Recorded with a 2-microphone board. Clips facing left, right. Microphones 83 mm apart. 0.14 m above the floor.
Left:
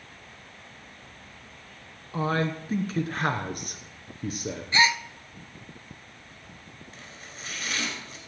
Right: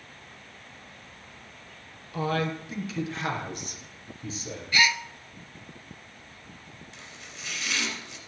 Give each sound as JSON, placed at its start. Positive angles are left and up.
{"t": 2.1, "sound": "a man speaking", "side_deg": 30, "distance_m": 1.3}
{"t": 4.7, "sound": "a gasp", "side_deg": 30, "distance_m": 0.6}
{"t": 6.9, "sound": "chopping", "side_deg": 45, "distance_m": 3.5}